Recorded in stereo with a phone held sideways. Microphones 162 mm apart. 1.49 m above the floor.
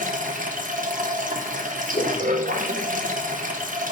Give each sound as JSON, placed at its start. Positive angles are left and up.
{"t": 0.0, "sound": "running water", "side_deg": -55, "distance_m": 0.8}
{"t": 1.9, "sound": "a whoosh", "side_deg": 60, "distance_m": 1.8}